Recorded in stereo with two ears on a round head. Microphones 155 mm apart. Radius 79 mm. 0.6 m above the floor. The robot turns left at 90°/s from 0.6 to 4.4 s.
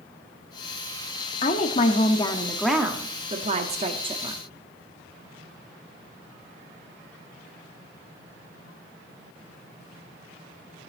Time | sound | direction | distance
1.4 | a woman speaking | 115° left | 1.0 m